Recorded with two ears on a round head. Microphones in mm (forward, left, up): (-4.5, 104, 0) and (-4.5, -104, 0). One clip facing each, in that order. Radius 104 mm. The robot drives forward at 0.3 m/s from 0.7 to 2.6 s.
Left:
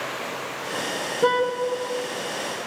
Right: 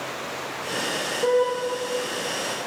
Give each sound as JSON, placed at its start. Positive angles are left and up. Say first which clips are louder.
{"t": 1.2, "sound": "a car horn", "louder": "right 1 dB", "side_deg": 85, "distance_m": 5.0}